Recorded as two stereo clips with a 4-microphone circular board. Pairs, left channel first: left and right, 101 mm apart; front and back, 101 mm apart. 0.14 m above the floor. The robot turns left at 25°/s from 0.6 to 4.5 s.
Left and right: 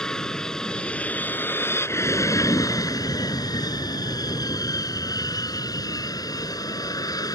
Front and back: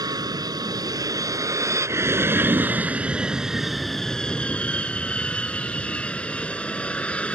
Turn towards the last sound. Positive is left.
turn(degrees=75)